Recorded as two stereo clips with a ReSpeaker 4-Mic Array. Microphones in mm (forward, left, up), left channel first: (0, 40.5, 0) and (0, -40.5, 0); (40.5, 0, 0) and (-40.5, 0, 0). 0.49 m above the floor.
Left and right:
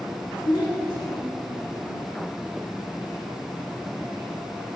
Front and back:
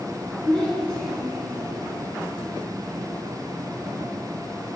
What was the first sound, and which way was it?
A child speaking, 80° left.